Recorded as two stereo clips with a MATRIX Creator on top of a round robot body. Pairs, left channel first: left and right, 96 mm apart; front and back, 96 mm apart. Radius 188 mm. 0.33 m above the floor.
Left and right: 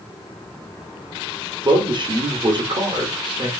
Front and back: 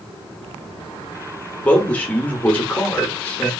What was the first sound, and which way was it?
A man speaking, 75° right.